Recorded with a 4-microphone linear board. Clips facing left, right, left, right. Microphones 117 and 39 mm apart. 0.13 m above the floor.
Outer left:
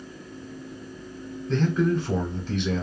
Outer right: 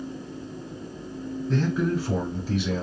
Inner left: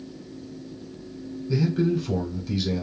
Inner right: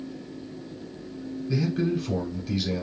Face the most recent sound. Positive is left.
turn(degrees=-5)  # may be behind; listen again after turning